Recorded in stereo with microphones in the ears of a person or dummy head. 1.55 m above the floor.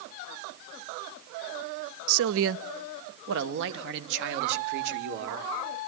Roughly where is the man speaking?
Right.